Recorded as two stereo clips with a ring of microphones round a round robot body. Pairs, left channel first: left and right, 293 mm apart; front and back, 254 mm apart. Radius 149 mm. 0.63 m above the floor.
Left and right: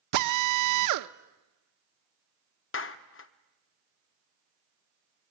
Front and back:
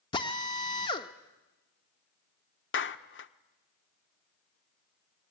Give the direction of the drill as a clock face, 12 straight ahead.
2 o'clock.